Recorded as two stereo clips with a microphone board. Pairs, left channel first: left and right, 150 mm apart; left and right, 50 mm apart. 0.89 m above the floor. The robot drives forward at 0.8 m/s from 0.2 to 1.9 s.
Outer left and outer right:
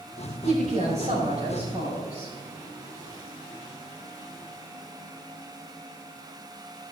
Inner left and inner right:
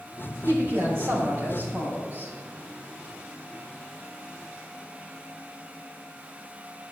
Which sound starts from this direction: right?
A woman speaking, at 0.4 s.